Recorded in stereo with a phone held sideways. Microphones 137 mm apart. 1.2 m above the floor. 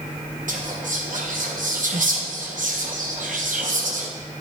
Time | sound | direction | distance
0.5 | whispering | 70° right (ahead or behind) | 0.8 m